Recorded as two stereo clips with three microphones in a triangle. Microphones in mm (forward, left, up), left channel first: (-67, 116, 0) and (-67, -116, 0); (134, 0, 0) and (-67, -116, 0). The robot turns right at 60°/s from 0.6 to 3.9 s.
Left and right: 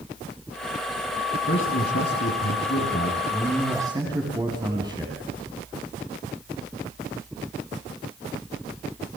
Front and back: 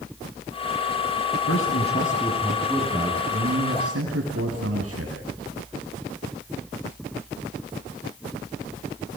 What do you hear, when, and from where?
1.5 s a man speaking: 50° left, 6 m; by 5.1 s 165° right, 6 m